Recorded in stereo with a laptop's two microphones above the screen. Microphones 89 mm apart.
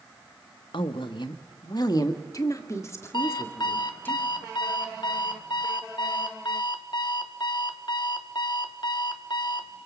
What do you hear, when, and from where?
0.7 s a woman speaking: 75° left (ahead or behind), 1.2 m; by 4.1 s 20° left (ahead or behind), 2 m
3.1 s an alarm clock: 60° left (ahead or behind), 1.0 m